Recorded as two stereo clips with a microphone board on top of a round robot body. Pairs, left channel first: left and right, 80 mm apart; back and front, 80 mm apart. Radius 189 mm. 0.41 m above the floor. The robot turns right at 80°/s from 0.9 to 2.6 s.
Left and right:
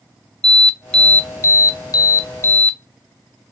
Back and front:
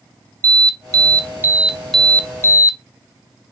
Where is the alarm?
10° left, 0.7 m; by 2.8 s 145° left, 0.7 m.